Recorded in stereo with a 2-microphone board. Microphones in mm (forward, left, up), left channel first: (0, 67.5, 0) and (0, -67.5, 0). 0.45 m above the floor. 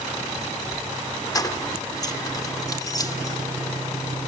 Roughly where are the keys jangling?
Left.